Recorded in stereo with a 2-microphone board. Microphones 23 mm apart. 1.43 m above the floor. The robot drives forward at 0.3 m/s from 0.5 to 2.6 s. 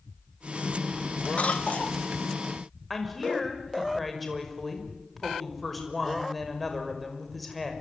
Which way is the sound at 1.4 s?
65° left (ahead or behind).